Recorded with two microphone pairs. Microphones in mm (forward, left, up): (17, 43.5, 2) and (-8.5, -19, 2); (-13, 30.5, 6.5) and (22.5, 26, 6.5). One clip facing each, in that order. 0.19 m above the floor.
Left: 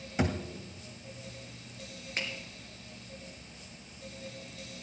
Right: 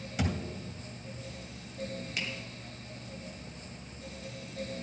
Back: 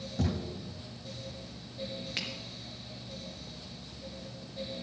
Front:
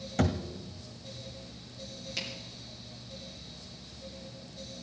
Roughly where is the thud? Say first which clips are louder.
Left 3 dB, front 4 dB; ahead.